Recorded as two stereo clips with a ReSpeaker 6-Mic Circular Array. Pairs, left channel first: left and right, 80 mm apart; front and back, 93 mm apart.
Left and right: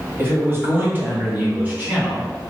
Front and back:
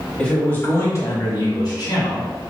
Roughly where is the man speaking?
Right.